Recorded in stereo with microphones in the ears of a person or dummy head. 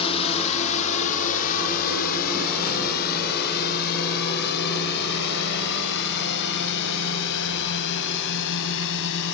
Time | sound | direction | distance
0.0 | a drone | 30° left (ahead or behind) | ?